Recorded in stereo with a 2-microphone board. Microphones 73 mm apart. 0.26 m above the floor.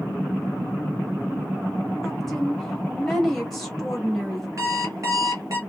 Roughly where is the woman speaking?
Centre.